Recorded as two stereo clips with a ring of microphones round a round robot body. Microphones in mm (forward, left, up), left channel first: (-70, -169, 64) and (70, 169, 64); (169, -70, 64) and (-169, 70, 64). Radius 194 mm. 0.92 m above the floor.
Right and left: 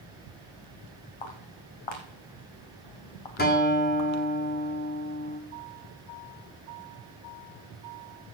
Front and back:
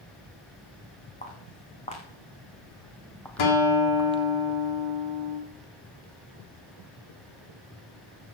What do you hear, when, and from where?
1.2 s footsteps: 95° right, 3.5 m; by 4.2 s 140° right, 1.1 m
3.4 s a guitar: 45° right, 2.5 m